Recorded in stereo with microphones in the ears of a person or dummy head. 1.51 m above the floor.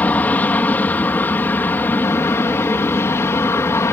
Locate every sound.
0.0 s an aircraft: 10° left (ahead or behind); by 3.9 s 15° left (ahead or behind)